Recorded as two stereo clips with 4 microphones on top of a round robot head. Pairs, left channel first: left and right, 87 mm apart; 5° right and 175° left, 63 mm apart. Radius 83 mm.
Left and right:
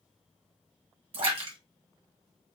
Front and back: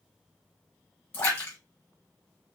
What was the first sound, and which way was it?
A splash, 65° right.